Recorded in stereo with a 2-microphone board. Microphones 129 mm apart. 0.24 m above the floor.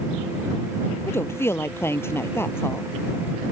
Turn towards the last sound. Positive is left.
turn(degrees=20)  # may be behind; listen again after turning